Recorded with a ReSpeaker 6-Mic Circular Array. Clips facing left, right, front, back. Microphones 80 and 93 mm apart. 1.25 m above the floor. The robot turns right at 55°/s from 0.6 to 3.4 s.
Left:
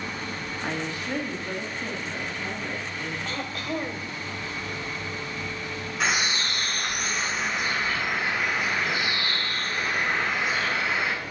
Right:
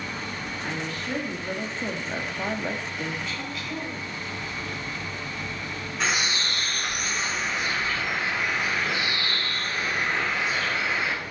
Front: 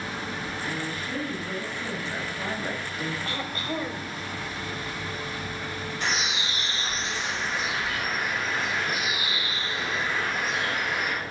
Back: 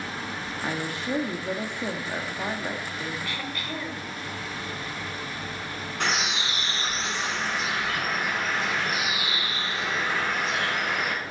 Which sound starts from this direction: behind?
A bird, at 6.0 s.